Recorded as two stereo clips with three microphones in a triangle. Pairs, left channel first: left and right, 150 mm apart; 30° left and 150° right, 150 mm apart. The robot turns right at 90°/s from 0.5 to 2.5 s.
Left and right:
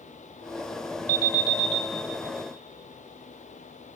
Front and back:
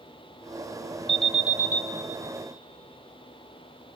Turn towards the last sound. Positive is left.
turn(degrees=150)